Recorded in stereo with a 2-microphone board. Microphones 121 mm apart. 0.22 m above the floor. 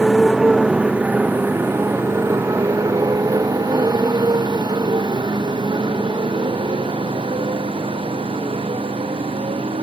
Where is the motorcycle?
Centre (ahead or behind); by 9.8 s 50° right (ahead or behind).